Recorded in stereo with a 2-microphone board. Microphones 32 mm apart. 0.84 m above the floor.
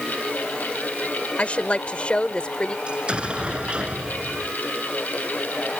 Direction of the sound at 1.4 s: 40° left (ahead or behind).